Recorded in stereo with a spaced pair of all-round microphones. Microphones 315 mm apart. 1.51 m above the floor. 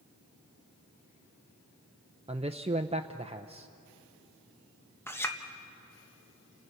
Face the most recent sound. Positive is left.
turn(degrees=5)  # may be behind; listen again after turning